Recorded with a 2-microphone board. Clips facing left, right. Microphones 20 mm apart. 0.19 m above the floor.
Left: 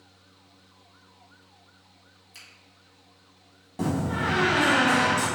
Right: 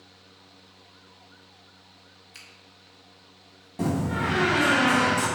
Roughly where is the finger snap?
Centre.